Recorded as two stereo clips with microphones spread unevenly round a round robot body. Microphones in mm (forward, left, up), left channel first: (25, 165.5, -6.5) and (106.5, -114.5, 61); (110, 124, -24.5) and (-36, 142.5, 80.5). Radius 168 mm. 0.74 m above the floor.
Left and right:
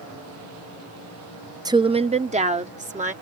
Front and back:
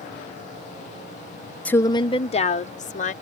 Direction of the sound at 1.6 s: 15° left.